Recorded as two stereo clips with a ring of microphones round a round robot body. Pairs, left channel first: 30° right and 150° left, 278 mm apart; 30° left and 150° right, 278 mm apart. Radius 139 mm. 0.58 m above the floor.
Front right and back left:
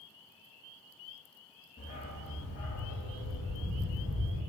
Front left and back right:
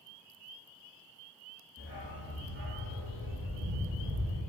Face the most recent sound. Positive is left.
turn(degrees=-80)